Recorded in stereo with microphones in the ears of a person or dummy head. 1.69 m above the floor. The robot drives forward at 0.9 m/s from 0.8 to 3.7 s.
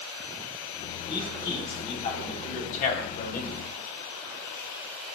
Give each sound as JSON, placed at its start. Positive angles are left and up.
{"t": 1.1, "sound": "a man speaking", "side_deg": 25, "distance_m": 3.5}